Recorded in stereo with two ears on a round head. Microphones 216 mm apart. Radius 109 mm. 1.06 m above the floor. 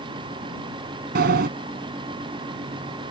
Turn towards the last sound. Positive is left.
turn(degrees=-40)  # may be behind; listen again after turning